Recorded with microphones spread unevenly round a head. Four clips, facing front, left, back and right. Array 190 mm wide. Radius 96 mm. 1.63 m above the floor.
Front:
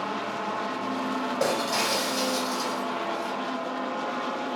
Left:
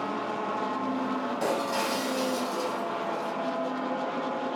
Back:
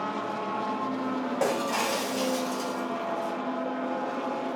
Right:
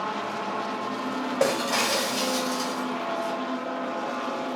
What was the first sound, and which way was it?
Breaking glass, 80° right.